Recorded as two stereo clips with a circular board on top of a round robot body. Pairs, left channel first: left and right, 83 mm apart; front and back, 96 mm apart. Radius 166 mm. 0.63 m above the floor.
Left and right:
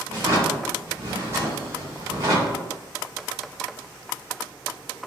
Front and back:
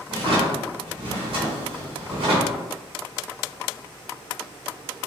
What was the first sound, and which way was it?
A drawer, 150° right.